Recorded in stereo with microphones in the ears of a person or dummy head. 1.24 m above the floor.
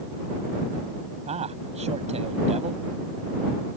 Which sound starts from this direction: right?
A man speaking, at 1.3 s.